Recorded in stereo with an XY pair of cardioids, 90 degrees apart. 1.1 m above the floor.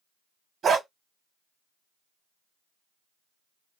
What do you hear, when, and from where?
0.6 s a dog barking: 55° right, 1.5 m